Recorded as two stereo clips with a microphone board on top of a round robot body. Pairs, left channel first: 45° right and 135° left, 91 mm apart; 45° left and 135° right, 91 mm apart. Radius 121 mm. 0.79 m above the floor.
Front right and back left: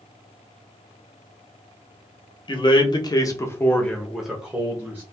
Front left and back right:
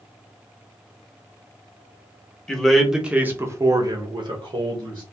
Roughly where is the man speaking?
Ahead right.